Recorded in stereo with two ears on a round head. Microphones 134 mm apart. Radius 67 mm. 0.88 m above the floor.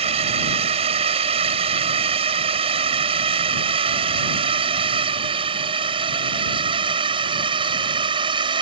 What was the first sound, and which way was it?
A drone, 40° right (ahead or behind).